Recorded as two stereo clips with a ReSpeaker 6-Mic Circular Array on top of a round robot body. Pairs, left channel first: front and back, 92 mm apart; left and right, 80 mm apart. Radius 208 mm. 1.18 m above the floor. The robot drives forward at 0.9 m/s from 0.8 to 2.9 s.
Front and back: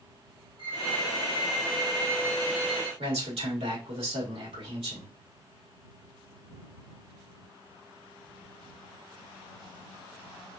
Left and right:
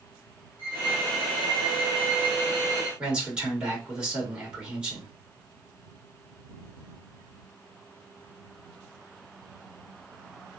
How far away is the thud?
No thud in this recording.